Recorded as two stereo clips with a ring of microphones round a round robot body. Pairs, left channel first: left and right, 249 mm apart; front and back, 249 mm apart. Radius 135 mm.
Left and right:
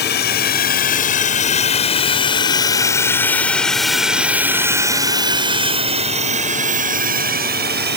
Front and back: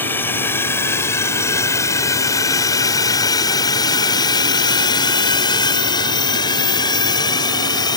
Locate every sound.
0.0 s a drone: 80° left; by 8.0 s 65° right